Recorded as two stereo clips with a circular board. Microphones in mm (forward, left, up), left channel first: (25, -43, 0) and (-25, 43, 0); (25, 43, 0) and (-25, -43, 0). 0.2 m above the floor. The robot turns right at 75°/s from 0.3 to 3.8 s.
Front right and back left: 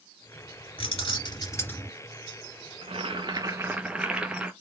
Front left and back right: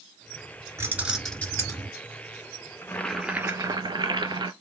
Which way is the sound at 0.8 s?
60° right.